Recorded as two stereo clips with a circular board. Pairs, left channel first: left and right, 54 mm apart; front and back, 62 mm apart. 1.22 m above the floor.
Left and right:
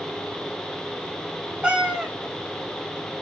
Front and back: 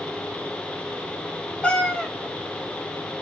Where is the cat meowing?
50° right, 0.8 m.